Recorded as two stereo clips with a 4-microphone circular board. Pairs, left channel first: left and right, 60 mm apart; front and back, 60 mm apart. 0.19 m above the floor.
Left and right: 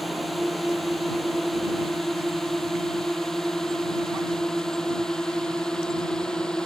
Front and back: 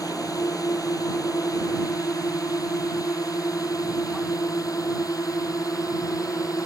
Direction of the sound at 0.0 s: Straight ahead.